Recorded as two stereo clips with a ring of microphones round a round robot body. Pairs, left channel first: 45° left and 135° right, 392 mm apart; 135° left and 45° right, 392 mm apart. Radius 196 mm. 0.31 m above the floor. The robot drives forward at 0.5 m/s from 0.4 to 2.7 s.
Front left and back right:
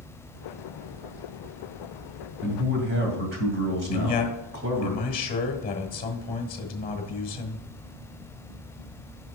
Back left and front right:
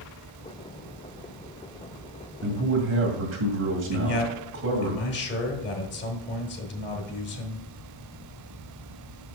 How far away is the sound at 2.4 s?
About 2 m.